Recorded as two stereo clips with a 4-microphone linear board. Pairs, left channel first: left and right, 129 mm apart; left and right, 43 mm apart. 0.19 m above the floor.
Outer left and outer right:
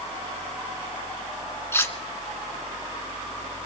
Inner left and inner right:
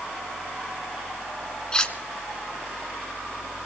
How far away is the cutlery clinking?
About 1.2 m.